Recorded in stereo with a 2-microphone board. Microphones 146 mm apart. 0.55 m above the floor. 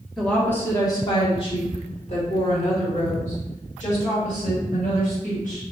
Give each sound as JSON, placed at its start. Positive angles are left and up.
{"t": 0.2, "sound": "a woman speaking", "side_deg": 0, "distance_m": 1.0}